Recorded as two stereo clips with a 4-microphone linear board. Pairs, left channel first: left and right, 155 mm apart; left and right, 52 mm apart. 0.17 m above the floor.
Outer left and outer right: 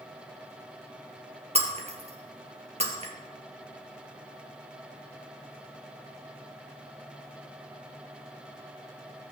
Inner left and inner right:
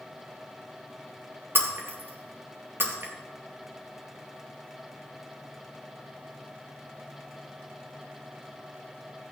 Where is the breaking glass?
45° right (ahead or behind), 2 m.